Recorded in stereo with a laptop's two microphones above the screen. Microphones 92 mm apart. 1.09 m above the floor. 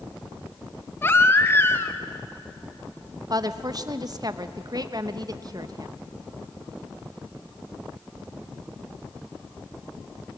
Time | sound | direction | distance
1.0 | a baby crying | 25° left (ahead or behind) | 0.7 m
3.3 | a woman speaking | 45° right (ahead or behind) | 1.0 m